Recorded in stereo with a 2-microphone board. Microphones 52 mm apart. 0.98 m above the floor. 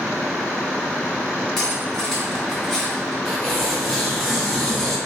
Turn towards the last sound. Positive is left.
turn(degrees=10)  # may be behind; listen again after turning